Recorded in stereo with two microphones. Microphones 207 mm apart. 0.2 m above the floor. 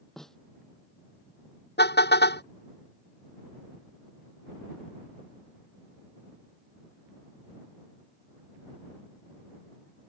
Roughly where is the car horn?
Left.